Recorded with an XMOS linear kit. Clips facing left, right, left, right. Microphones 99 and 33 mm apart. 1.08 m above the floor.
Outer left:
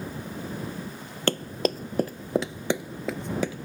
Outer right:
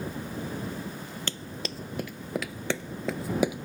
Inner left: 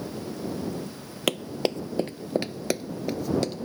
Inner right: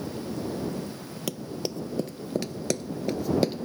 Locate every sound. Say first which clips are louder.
1.3 s running footsteps: outer left 15 dB, inner left 7 dB; 55° left (ahead or behind); by 3.6 s 20° right (ahead or behind)